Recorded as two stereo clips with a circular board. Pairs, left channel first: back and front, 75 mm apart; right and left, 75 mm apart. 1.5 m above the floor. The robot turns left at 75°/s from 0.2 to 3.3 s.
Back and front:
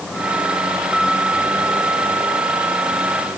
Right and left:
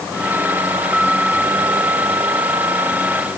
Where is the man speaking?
I don't hear a man speaking.